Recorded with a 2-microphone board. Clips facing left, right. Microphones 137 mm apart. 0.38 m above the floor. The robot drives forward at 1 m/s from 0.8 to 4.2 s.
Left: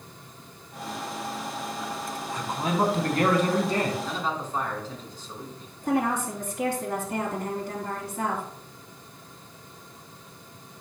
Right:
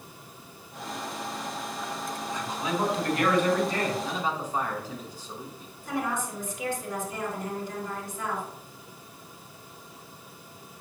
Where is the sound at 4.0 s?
10° right (ahead or behind), 3 m.